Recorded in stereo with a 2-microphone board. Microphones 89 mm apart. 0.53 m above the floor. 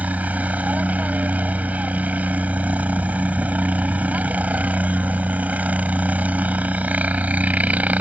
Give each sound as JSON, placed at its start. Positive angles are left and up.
{"t": 0.0, "sound": "a helicopter", "side_deg": -15}